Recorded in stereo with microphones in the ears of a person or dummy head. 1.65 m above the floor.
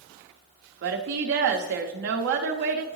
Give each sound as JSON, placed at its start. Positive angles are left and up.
{"t": 0.8, "sound": "a woman speaking", "side_deg": -55, "distance_m": 0.6}